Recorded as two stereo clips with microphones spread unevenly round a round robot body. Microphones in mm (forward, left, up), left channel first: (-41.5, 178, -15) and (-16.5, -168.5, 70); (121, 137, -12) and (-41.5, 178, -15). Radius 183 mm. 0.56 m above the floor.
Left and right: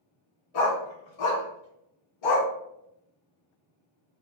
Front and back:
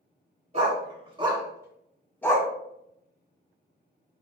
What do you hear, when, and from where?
0.5 s a dog barking: 115° left, 1.7 m; by 2.5 s 55° left, 1.0 m